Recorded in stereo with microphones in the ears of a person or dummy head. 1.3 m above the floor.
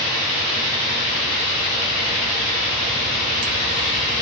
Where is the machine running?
15° left (ahead or behind), 1.4 m.